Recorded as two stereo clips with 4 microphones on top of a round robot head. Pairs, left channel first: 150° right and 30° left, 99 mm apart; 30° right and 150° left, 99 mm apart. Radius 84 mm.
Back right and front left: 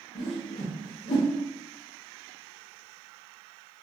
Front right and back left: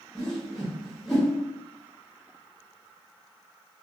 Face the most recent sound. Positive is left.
turn(degrees=-120)